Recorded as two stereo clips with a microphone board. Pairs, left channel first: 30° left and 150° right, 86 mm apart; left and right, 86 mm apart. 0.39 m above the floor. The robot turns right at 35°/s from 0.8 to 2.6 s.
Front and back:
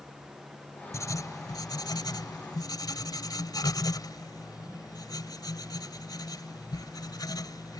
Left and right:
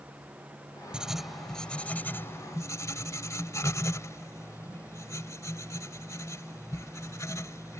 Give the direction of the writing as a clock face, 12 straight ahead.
12 o'clock.